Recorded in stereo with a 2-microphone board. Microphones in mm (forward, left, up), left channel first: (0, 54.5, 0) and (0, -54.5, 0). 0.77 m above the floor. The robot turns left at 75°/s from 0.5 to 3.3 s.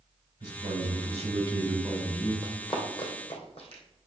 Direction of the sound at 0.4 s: 55° right.